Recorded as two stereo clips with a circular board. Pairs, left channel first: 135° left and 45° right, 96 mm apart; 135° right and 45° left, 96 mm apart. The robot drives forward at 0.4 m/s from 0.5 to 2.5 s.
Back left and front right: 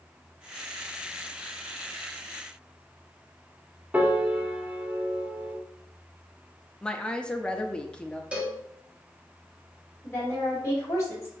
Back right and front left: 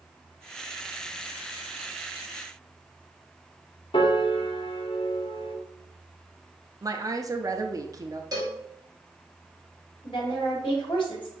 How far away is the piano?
About 0.9 m.